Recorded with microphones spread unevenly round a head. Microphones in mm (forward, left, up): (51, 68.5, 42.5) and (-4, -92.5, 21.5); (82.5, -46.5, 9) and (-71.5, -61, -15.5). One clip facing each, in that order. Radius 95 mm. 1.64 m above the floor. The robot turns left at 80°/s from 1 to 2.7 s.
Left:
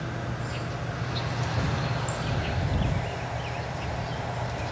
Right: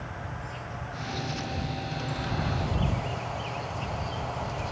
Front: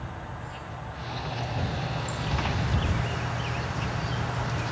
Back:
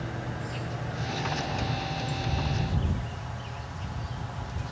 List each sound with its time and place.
0.0 s an insect: 125° left; by 4.7 s 10° right